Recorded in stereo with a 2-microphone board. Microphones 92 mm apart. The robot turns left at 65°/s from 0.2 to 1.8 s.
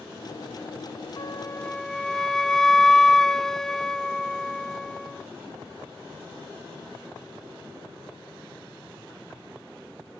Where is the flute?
45° left; by 5.2 s 5° left.